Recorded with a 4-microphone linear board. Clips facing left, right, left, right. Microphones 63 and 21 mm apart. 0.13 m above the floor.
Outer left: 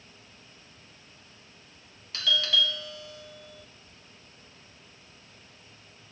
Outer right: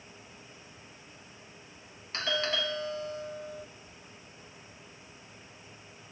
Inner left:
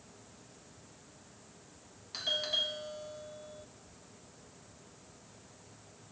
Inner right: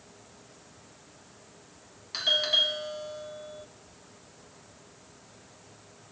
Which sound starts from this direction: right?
A doorbell, at 2.1 s.